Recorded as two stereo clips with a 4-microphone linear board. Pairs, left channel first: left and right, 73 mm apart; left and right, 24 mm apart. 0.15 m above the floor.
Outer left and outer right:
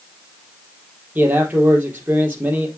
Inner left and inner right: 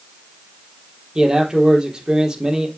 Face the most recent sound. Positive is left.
turn(degrees=-25)  # may be behind; listen again after turning